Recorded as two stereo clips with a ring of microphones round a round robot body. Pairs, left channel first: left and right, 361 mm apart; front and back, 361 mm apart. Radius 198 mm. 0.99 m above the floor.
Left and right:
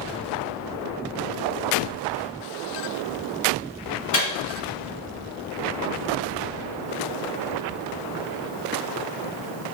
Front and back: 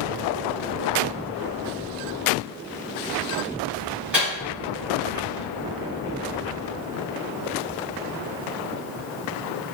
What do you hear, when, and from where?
4.1 s a microwave: 95° left, 1.8 m